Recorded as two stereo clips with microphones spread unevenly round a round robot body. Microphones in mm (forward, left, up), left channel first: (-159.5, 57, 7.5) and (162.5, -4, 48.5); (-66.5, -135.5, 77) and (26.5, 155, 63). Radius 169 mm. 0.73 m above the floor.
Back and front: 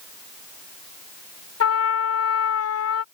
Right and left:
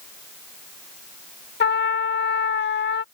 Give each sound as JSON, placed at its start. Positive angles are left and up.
{"t": 1.6, "sound": "a trumpet", "azimuth_deg": -160}